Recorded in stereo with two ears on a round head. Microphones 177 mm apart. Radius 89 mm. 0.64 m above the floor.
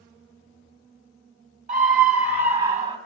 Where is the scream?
45° right (ahead or behind), 5 m; by 3.0 s 30° right (ahead or behind), 5.5 m.